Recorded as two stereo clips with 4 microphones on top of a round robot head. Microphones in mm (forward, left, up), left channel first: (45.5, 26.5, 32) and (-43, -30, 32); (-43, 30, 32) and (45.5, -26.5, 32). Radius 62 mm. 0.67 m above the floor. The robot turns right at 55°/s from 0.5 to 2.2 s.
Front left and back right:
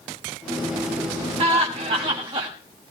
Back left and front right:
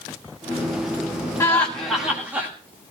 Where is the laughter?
150° right, 1.8 m; by 2.5 s 105° right, 1.8 m.